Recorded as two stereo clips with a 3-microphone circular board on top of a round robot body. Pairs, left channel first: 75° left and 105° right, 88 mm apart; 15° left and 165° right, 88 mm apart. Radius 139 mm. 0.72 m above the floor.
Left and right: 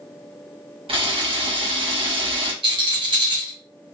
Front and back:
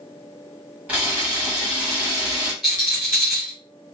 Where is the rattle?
75° right, 1.4 m.